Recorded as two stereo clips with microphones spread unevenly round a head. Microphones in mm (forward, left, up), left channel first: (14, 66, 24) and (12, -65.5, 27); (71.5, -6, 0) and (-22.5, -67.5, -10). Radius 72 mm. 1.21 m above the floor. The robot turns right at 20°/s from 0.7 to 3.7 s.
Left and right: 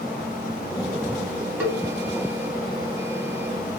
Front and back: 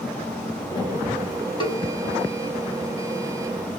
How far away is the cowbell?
About 1.8 m.